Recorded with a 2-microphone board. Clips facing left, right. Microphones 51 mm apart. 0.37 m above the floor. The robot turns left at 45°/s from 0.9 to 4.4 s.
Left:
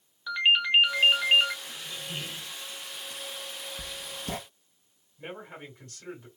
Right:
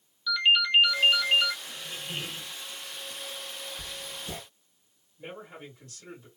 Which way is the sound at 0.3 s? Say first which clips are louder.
Even; 25° left (ahead or behind).